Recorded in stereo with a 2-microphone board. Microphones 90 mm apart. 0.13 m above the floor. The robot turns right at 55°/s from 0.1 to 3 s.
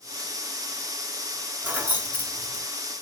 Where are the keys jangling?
20° right (ahead or behind), 0.8 m.